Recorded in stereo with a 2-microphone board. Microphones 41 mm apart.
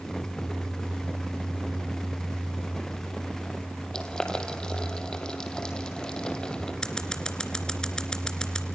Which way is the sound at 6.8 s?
15° left (ahead or behind).